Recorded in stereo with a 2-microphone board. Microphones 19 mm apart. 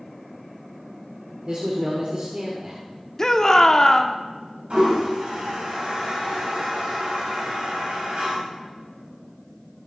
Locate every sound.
1.5 s a man speaking: 50° right (ahead or behind), 1.4 m
3.2 s a shout: 30° left (ahead or behind), 0.8 m
4.7 s a toilet flushing: 75° right (ahead or behind), 3 m